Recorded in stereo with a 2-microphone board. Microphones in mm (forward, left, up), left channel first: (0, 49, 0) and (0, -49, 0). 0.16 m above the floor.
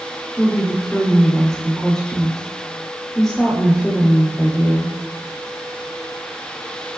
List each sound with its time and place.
0.4 s a woman speaking: 5° left (ahead or behind), 6 m